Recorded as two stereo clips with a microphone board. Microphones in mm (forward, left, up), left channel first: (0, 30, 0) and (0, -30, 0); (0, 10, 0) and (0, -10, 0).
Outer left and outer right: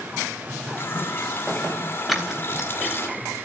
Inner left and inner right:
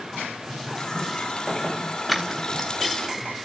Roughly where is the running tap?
Left.